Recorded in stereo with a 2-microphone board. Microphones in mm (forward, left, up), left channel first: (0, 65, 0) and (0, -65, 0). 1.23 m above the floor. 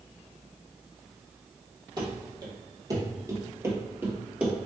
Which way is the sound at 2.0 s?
35° right (ahead or behind).